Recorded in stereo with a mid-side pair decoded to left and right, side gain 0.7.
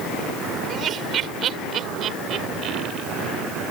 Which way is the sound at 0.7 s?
40° right.